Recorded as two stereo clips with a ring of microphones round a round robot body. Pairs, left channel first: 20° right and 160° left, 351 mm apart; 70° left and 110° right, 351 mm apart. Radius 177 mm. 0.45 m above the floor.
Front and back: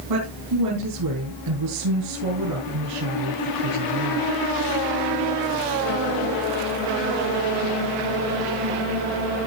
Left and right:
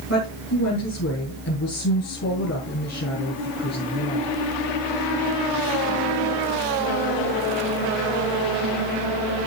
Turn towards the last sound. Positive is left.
turn(degrees=125)